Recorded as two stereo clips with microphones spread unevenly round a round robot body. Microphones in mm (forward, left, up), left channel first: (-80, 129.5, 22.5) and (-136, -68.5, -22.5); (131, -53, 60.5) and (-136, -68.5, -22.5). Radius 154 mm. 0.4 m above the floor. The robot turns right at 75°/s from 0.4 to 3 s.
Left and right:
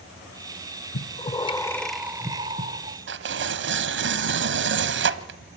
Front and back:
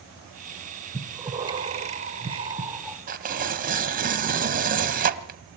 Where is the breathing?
105° left, 1.2 m; by 3.0 s 100° right, 1.2 m.